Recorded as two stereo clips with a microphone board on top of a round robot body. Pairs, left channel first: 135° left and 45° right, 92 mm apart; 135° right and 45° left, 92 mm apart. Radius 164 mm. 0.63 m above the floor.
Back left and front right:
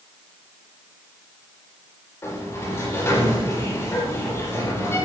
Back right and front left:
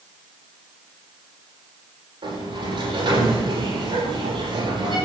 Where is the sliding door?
75° left, 9.5 m.